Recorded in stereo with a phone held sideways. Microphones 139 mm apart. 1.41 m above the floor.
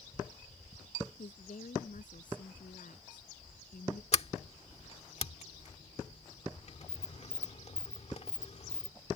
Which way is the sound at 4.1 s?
50° left (ahead or behind).